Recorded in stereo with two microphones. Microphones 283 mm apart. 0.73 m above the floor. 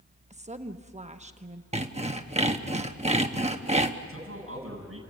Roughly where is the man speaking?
Right.